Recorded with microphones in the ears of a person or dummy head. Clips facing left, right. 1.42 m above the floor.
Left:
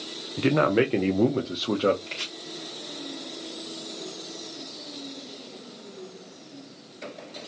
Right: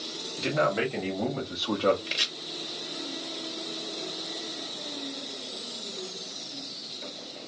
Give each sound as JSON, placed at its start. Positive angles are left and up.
{"t": 0.4, "sound": "a man speaking", "side_deg": 45, "distance_m": 0.6}
{"t": 2.1, "sound": "chopping", "side_deg": -20, "distance_m": 0.8}